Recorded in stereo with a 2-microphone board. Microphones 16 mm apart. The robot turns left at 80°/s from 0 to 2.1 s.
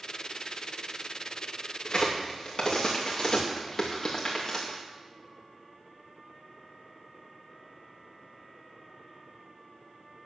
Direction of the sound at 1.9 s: 35° left (ahead or behind).